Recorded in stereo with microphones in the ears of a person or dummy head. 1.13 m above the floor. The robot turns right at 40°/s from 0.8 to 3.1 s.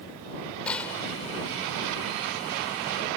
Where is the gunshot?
5° left (ahead or behind); by 1.1 s 20° left (ahead or behind).